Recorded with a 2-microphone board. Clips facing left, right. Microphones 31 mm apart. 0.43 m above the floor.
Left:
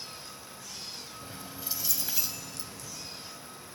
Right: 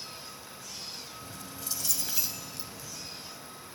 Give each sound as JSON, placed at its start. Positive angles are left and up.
{"t": 1.2, "sound": "keys jangling", "side_deg": 35, "distance_m": 1.5}